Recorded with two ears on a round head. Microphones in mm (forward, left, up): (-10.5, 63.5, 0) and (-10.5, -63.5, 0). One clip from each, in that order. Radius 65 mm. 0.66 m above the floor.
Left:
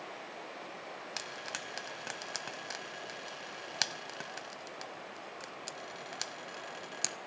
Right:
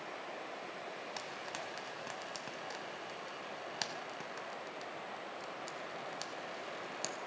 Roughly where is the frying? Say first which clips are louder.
Left 5 dB; left.